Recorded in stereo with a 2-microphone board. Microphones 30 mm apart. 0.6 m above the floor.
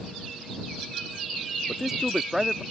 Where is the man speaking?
15° right (ahead or behind).